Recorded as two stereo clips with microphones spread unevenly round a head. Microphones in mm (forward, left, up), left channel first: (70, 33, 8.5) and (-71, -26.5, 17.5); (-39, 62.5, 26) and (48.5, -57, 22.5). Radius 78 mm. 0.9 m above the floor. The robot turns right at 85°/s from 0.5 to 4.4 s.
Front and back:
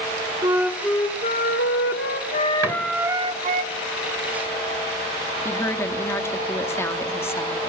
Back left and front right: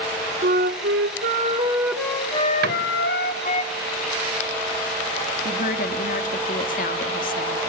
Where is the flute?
90° right, 1.8 m; by 3.6 s straight behind, 1.8 m.